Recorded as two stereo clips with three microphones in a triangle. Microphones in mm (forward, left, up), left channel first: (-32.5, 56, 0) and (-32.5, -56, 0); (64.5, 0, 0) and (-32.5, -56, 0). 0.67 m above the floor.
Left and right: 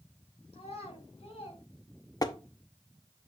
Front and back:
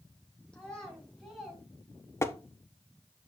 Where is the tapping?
75° left, 0.7 m.